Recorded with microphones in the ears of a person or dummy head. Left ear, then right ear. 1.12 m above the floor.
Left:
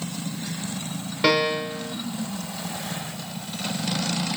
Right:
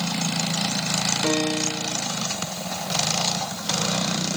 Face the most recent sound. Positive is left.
turn(degrees=60)  # may be behind; listen again after turning